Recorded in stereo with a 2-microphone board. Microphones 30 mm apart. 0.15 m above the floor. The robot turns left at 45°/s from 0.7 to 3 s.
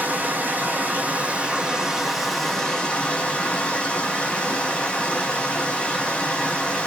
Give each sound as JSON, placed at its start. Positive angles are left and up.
{"t": 0.0, "sound": "running water", "azimuth_deg": -110, "distance_m": 0.8}